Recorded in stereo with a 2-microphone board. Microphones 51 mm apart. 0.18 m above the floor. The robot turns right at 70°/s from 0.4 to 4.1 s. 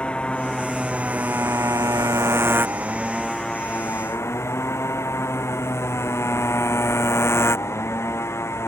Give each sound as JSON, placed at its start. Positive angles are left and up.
{"t": 0.0, "sound": "a motorcycle", "azimuth_deg": 165}